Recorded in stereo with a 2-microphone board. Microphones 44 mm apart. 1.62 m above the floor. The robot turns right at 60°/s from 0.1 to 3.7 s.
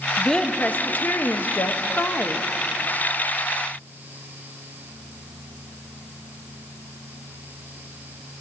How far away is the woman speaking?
About 0.8 m.